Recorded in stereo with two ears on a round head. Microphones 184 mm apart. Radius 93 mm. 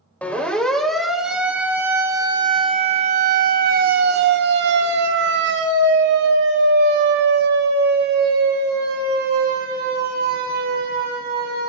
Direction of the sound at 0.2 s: 5° left (ahead or behind).